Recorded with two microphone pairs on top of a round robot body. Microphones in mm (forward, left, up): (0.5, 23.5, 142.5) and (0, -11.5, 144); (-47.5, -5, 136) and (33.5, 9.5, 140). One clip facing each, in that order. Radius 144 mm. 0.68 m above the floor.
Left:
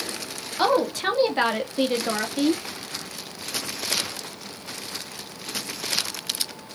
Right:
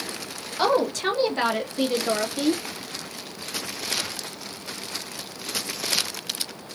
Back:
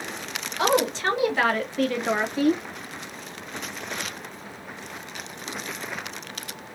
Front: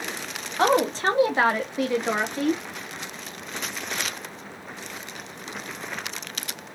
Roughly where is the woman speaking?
Ahead.